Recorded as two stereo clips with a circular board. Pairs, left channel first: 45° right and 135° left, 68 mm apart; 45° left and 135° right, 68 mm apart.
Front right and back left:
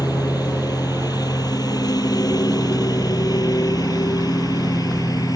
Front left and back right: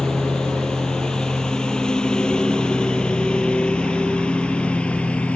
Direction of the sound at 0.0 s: 35° right.